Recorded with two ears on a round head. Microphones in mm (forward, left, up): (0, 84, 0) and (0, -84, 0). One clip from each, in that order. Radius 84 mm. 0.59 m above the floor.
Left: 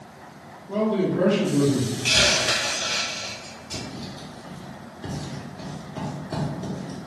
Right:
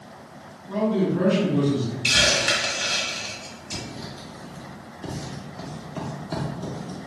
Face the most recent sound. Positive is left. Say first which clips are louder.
# even
turn(degrees=-40)  # may be behind; listen again after turning